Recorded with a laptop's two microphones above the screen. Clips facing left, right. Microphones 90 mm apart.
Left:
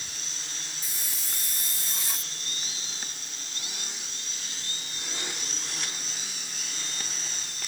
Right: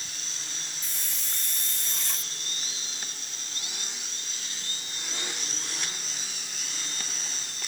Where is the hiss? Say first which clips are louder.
Even; 10° left (ahead or behind).